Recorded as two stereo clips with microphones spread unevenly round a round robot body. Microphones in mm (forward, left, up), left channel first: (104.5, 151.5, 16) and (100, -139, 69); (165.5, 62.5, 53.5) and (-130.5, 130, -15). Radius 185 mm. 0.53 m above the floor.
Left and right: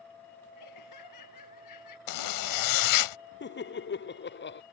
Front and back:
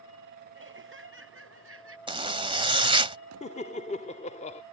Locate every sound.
0.6 s laughter: 115° left; by 2.0 s 120° left
2.1 s a zipper: 90° left
3.4 s laughter: 60° left